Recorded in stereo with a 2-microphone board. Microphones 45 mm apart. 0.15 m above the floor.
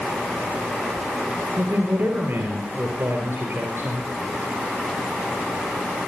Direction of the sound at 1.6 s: 60° right (ahead or behind).